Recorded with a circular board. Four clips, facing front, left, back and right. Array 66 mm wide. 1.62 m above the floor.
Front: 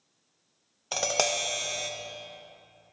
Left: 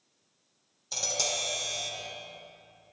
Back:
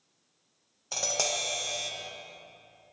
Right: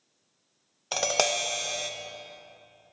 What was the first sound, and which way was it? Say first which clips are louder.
Tapping: right 8 dB, front 5 dB; 65° right.